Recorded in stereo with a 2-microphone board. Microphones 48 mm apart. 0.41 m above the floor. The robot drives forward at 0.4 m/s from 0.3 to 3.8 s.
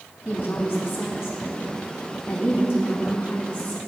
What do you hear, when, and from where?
0.2 s a woman speaking: 65° left (ahead or behind), 3.5 m; by 3.8 s 55° left (ahead or behind), 4 m